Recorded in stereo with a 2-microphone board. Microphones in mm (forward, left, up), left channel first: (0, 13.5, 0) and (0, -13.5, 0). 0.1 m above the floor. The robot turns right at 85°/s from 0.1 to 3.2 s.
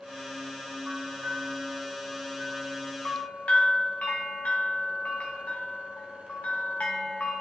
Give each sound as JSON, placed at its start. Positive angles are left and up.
{"t": 0.9, "sound": "a bell", "azimuth_deg": -140, "distance_m": 3.5}